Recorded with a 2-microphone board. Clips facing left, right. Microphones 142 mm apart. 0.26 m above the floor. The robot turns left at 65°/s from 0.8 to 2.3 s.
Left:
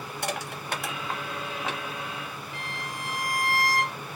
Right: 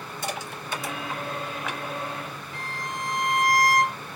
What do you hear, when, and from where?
0.2 s crushing: 65° left (ahead or behind), 1.4 m; by 1.8 s 20° left (ahead or behind), 1.4 m
2.5 s a violin: 45° right (ahead or behind), 2 m